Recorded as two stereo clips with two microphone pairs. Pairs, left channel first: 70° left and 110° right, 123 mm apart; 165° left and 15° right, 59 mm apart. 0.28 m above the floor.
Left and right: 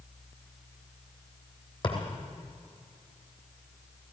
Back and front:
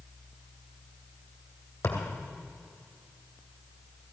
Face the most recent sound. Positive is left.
turn(degrees=115)